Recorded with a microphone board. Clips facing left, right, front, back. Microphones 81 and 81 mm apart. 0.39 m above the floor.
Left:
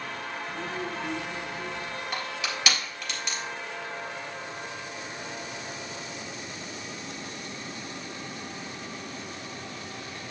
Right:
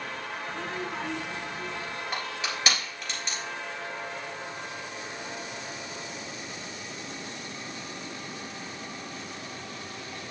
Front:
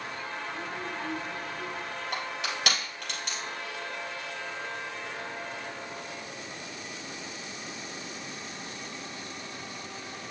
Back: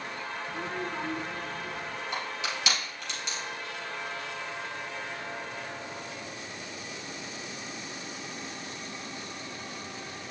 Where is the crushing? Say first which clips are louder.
Even, even; 35° right, 3 m.